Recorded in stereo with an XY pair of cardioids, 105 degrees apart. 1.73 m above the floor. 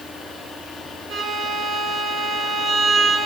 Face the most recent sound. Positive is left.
turn(degrees=-60)